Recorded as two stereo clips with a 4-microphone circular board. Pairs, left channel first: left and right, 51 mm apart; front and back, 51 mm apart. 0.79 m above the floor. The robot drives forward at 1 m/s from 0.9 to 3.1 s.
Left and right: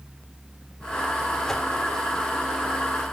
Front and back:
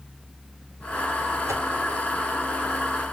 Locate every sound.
1.5 s a whoosh: 170° left, 2.5 m